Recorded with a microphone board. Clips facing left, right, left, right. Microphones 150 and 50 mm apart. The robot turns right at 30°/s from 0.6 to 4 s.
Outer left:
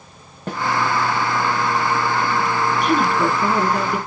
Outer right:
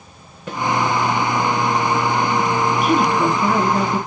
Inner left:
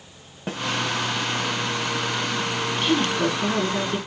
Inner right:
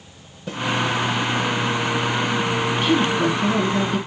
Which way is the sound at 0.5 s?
45° left (ahead or behind).